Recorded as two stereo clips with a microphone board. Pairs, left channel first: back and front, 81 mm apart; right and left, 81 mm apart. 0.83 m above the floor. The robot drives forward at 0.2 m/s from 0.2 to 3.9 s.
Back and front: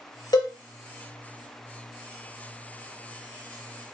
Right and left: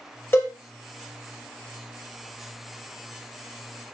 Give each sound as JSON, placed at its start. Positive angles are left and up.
{"t": 0.3, "sound": "a cowbell", "azimuth_deg": -150, "distance_m": 0.6}